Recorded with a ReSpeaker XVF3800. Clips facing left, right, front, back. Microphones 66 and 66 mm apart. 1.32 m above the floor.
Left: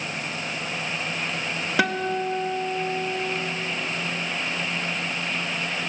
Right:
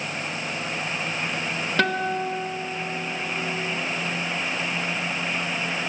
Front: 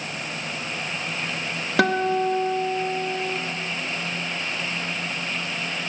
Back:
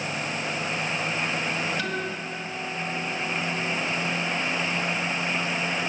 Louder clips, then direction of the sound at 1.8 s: Even, front 10 dB; 10° left.